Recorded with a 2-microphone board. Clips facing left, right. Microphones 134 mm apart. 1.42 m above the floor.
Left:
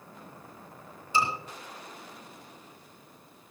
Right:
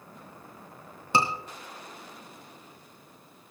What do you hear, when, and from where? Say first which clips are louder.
1.1 s a scream: right 2 dB; 80° right, 3 m